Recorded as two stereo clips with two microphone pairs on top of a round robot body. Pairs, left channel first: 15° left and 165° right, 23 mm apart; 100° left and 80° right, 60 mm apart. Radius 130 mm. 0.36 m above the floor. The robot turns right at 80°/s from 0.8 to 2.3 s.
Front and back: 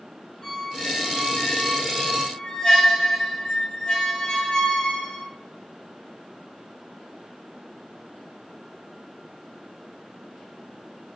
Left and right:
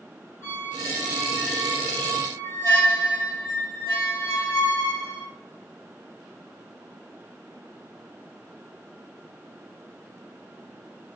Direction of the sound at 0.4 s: 45° right.